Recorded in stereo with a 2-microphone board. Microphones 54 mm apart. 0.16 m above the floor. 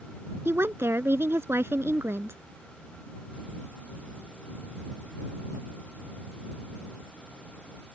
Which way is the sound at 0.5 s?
50° right (ahead or behind).